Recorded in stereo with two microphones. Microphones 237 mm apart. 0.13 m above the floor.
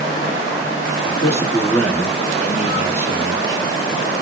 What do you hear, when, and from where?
1.0 s a man speaking: 15° left (ahead or behind), 1.6 m; by 3.7 s 20° right (ahead or behind), 1.2 m